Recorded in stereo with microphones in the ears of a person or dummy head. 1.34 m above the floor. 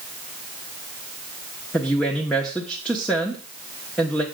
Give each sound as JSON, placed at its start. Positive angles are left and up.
{"t": 1.7, "sound": "a woman speaking", "side_deg": 0, "distance_m": 1.0}